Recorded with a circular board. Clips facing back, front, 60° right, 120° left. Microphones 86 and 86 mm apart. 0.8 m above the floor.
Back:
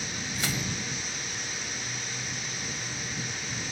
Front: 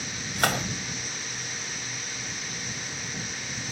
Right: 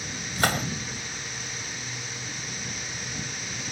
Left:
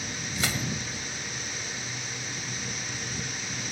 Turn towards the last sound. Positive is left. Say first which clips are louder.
# front 8 dB, right 7 dB
turn(degrees=-25)